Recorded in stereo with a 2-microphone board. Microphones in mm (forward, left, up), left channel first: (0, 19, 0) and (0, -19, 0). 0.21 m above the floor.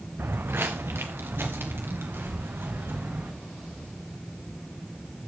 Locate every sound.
0.2 s footsteps: 80° right, 0.9 m; by 3.3 s 90° right, 3.5 m